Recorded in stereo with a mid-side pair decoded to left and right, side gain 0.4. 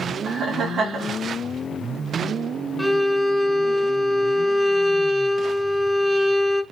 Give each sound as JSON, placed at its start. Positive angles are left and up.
{"t": 0.2, "sound": "laughter", "azimuth_deg": -60, "distance_m": 2.0}
{"t": 2.8, "sound": "a violin", "azimuth_deg": 0, "distance_m": 1.2}